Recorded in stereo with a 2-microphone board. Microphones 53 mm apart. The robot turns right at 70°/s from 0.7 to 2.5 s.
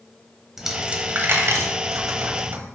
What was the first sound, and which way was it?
A dropped coin, 10° right (ahead or behind).